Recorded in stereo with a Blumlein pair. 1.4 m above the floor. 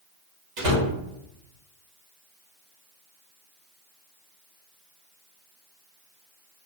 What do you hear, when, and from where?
0.6 s a door slam: 45° right, 1.2 m